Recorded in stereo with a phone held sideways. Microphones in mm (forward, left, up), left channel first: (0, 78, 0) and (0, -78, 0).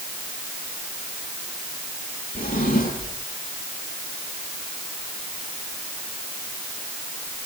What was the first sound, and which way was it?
A drawer, 65° left (ahead or behind).